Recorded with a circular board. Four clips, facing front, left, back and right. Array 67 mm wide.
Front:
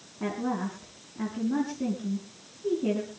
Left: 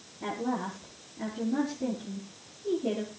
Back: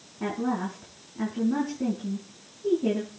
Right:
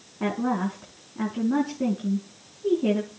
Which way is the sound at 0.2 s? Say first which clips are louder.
Right 6 dB, back 2 dB; 95° right.